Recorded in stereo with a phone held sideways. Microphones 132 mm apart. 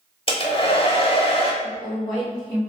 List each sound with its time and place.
0.3 s a hair dryer: 45° left (ahead or behind), 0.7 m
1.6 s a woman speaking: 30° left (ahead or behind), 2.0 m